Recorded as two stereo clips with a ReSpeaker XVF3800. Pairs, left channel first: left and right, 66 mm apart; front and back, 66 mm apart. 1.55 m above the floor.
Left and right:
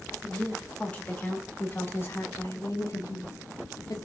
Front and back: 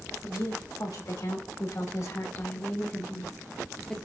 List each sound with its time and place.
0.2 s a woman speaking: 15° left, 3 m; by 4.0 s 75° left, 1.8 m